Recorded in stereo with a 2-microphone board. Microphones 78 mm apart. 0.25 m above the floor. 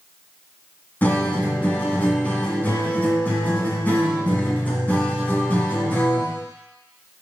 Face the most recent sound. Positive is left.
turn(degrees=20)  # may be behind; listen again after turning